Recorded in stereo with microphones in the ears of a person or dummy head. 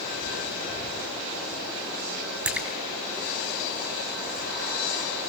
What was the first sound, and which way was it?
A splash, 5° right (ahead or behind).